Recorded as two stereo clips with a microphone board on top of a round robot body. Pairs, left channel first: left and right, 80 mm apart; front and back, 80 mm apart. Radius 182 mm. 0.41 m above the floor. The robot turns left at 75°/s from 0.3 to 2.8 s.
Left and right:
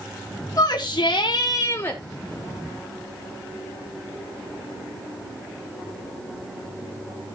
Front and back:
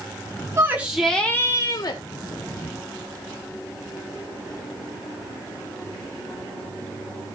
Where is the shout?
130° left, 1.9 m; by 2.0 s 20° left, 1.9 m.